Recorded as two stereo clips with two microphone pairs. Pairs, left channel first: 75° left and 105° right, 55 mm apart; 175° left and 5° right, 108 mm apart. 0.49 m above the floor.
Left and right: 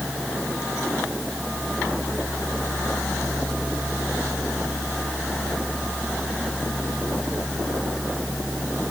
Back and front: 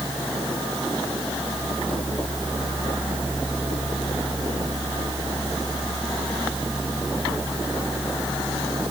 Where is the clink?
I don't hear a clink.